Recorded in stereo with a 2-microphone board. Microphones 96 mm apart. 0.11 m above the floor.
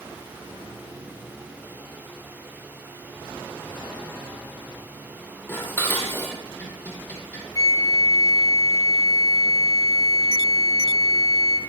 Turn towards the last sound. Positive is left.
turn(degrees=40)  # may be behind; listen again after turning